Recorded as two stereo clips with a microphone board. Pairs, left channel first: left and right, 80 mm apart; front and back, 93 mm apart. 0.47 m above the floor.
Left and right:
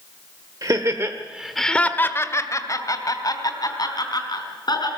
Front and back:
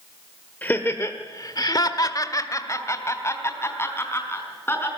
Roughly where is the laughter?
Ahead right.